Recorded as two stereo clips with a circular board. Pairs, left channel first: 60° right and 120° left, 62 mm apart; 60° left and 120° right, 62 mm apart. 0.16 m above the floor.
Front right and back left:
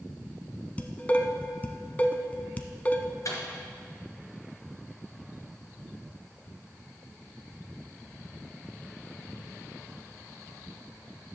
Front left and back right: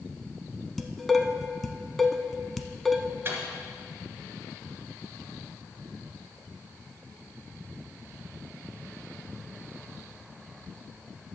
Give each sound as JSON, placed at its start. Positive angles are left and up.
{"t": 0.8, "sound": "dishes clattering", "azimuth_deg": -25, "distance_m": 0.8}
{"t": 3.2, "sound": "a microwave", "azimuth_deg": -70, "distance_m": 2.5}